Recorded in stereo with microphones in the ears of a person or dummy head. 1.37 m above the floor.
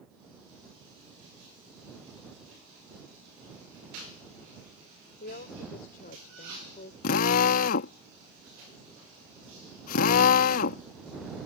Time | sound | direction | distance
5.2 | a woman speaking | 60° left (ahead or behind) | ?
7.0 | a drill | 55° left (ahead or behind) | ?